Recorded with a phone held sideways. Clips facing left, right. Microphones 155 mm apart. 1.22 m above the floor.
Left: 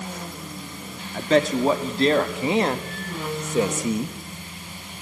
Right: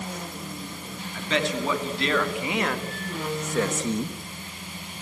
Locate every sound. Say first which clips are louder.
1.1 s a man speaking: left 7 dB; 45° left (ahead or behind), 2.5 m; by 4.2 s 5° left (ahead or behind), 1.3 m